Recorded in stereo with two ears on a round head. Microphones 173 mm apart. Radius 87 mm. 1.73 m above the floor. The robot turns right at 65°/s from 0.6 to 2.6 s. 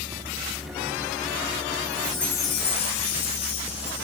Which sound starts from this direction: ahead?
A chime, at 1.8 s.